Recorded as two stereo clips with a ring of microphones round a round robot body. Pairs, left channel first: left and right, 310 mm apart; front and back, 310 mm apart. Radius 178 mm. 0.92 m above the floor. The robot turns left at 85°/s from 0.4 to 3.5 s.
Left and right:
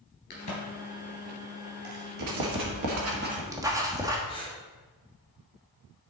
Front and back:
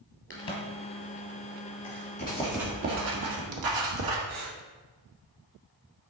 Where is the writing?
60° right, 1.5 m; by 4.2 s 170° right, 1.5 m.